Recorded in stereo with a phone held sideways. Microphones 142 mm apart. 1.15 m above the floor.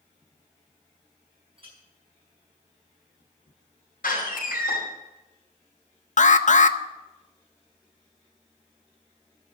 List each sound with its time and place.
1.6 s a clink: 40° right (ahead or behind), 6 m
4.0 s a door slam: 75° left (ahead or behind), 5 m
6.2 s an alarm: 60° left (ahead or behind), 0.5 m